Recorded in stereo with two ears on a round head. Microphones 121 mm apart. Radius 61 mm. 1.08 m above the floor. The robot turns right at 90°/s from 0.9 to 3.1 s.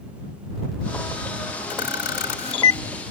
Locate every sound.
1.7 s a camera shutter: 60° left (ahead or behind); by 2.8 s 20° left (ahead or behind)